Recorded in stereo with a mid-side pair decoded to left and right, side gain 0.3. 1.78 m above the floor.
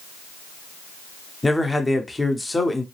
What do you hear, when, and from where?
1.4 s a man speaking: 20° left, 1.0 m